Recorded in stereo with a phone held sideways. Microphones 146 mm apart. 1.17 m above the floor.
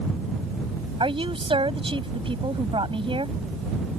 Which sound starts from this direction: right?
A woman speaking, at 1.0 s.